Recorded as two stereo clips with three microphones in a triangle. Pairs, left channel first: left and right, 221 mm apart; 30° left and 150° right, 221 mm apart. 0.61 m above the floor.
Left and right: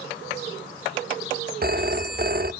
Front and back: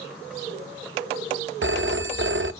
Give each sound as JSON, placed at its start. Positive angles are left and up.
{"t": 1.6, "sound": "a phone ringing", "azimuth_deg": -135, "distance_m": 0.6}